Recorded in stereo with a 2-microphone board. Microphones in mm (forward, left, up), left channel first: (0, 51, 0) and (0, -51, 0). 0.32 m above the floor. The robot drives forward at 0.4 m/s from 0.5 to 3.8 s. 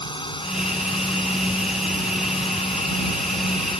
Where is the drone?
55° left (ahead or behind).